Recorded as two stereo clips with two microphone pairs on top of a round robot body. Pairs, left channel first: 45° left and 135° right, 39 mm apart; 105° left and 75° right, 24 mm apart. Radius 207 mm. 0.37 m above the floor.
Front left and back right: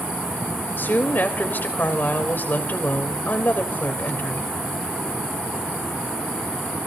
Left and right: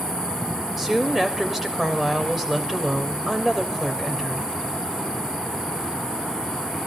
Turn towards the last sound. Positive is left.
turn(degrees=5)